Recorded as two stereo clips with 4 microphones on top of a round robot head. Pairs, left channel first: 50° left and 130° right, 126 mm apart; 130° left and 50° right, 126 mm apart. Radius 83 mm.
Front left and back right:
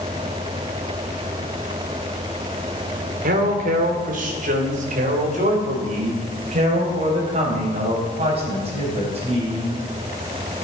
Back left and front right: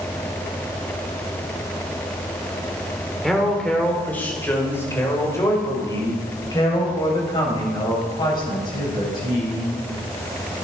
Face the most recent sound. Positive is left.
turn(degrees=-175)